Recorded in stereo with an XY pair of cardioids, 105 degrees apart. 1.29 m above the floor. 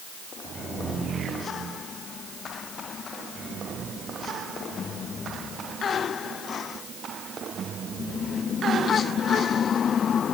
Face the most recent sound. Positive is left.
No sound to turn to.